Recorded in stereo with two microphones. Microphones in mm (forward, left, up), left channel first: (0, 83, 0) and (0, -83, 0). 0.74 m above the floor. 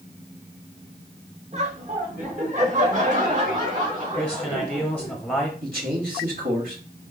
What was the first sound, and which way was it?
Laughter, 40° right (ahead or behind).